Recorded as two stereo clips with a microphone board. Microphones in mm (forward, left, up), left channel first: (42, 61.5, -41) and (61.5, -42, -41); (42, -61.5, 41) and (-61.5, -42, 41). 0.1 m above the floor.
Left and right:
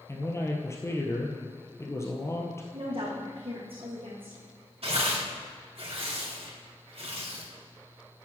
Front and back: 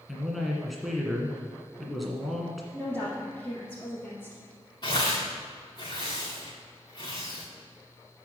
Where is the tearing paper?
55° right, 4 m.